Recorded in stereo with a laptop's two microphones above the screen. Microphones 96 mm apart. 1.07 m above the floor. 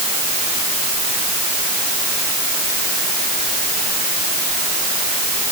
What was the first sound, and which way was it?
Only background noise.